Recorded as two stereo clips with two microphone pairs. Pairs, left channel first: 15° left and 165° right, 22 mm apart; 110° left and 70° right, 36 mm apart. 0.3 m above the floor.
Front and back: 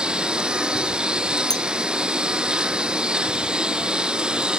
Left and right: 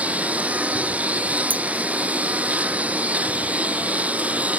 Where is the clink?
45° right.